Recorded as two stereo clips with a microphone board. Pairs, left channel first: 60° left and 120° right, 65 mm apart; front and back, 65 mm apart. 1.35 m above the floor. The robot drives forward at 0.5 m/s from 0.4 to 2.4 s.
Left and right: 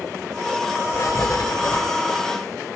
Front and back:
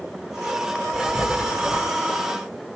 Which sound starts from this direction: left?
Writing, at 0.9 s.